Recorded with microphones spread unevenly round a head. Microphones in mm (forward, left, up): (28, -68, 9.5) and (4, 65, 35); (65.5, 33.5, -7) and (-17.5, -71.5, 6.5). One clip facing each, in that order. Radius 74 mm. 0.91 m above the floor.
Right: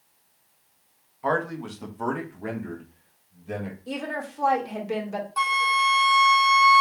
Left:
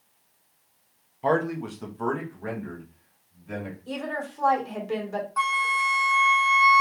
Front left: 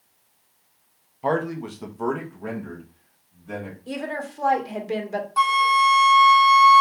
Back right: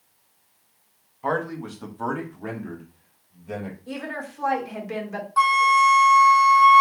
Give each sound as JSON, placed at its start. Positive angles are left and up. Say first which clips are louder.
{"t": 1.2, "sound": "a man speaking", "louder": "left 2 dB, front left 3 dB", "azimuth_deg": 45, "distance_m": 0.8}
{"t": 3.9, "sound": "a woman speaking", "louder": "even, front left 6 dB", "azimuth_deg": 0, "distance_m": 1.4}
{"t": 5.4, "sound": "a flute", "louder": "right 4 dB, back right 1 dB", "azimuth_deg": -20, "distance_m": 0.8}